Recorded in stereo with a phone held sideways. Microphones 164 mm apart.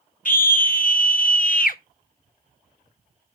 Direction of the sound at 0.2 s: 55° left (ahead or behind).